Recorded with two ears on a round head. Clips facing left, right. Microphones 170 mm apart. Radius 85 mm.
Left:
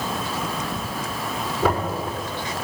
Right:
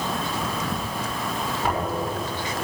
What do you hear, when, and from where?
1.6 s knocking: 65° left (ahead or behind), 6 m